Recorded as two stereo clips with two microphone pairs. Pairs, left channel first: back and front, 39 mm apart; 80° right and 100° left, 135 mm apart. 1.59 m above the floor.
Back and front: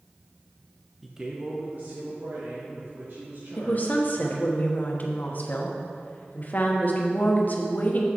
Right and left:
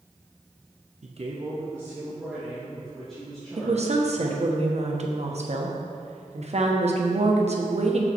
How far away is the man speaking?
About 0.9 m.